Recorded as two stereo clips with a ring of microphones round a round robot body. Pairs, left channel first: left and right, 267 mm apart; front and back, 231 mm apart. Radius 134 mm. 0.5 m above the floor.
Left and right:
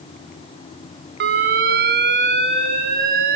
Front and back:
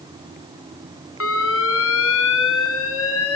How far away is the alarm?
About 2.5 m.